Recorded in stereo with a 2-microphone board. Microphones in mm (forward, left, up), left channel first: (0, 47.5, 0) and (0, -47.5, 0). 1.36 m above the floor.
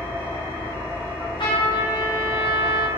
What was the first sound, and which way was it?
An engine running, 25° left (ahead or behind).